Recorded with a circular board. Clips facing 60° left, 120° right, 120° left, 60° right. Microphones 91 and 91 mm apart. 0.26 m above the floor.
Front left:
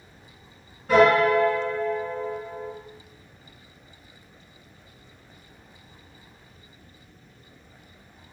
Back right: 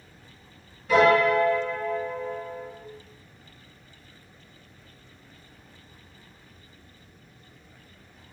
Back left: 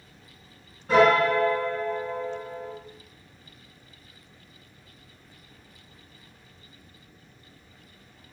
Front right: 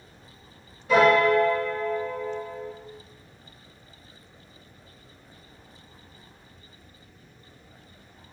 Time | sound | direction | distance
0.9 | a piano | 95° left | 1.8 m